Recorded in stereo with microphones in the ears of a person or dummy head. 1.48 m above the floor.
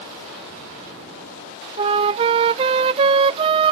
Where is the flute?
30° right (ahead or behind).